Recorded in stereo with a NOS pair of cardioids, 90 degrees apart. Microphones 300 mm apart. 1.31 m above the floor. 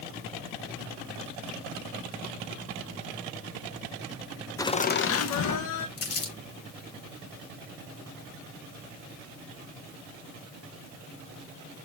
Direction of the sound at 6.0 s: 50° left.